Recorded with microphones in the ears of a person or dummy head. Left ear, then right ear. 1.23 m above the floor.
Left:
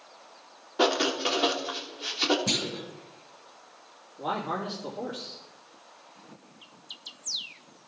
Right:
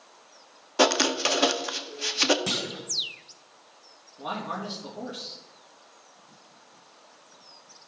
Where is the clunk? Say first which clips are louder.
Left 1 dB; 45° right (ahead or behind), 1.6 m.